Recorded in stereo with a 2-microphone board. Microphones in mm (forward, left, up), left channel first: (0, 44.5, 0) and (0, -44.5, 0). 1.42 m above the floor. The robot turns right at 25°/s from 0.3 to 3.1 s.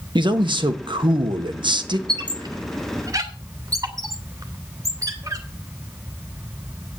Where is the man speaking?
110° right, 1.4 m; by 2.0 s 65° right, 1.4 m.